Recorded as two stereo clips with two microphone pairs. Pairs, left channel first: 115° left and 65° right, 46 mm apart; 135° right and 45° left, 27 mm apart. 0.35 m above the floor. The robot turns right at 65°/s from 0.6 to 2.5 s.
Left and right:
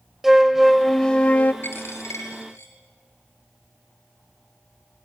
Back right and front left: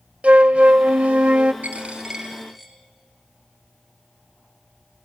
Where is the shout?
I don't hear a shout.